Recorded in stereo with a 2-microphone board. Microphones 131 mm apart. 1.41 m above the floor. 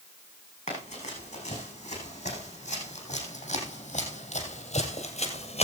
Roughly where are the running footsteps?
Left.